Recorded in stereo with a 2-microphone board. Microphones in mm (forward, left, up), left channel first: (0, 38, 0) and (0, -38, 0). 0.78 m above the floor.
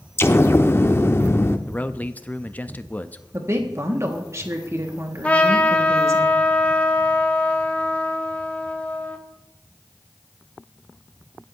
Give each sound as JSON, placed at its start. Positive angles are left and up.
{"t": 0.2, "sound": "an explosion", "side_deg": 30, "distance_m": 0.7}
{"t": 1.7, "sound": "a man speaking", "side_deg": 20, "distance_m": 0.6}
{"t": 3.3, "sound": "a woman speaking", "side_deg": -40, "distance_m": 1.5}
{"t": 5.2, "sound": "a trumpet", "side_deg": 15, "distance_m": 1.1}